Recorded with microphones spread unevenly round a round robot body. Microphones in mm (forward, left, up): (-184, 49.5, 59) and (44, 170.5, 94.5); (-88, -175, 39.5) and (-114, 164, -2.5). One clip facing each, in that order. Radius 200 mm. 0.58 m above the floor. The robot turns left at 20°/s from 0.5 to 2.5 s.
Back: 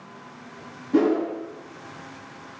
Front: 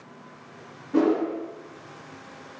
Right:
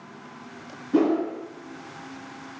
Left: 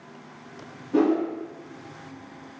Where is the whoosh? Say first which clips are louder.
Back 2 dB, even; 145° right, 1.5 m; by 1.2 s 150° right, 1.5 m.